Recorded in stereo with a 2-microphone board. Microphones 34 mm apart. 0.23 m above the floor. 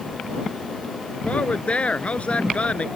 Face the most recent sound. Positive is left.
turn(degrees=40)  # may be behind; listen again after turning